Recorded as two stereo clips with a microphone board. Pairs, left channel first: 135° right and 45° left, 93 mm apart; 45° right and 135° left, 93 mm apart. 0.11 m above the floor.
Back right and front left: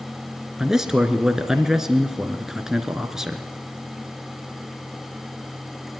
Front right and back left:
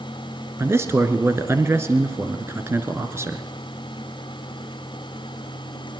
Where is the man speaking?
125° left, 1.5 m.